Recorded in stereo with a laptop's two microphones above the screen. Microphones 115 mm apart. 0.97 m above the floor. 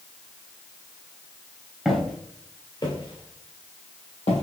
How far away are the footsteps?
About 1.3 m.